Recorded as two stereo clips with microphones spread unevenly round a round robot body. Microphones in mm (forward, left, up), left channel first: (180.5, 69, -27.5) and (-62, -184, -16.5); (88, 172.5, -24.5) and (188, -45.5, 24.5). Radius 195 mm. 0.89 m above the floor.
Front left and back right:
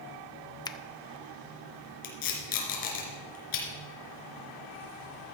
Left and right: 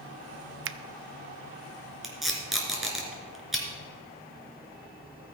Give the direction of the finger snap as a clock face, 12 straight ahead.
1 o'clock.